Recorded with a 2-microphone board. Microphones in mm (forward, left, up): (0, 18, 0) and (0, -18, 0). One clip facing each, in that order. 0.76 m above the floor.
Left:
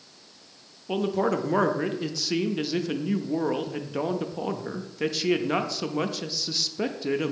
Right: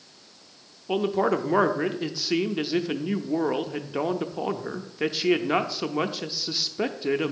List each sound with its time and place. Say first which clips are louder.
0.9 s a man speaking: right 2 dB; 15° right (ahead or behind), 0.5 m